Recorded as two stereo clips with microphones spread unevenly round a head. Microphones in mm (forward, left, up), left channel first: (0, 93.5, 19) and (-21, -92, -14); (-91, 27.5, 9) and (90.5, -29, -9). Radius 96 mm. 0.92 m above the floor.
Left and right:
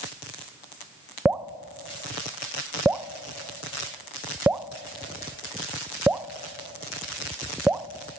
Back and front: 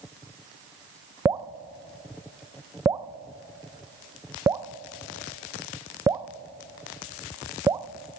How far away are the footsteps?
I don't hear footsteps.